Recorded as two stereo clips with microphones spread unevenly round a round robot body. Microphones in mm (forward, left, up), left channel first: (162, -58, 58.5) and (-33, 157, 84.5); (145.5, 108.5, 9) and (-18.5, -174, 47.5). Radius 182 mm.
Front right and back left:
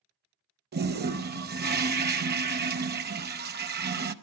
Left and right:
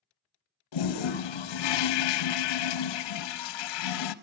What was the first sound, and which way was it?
A toilet flushing, 75° left.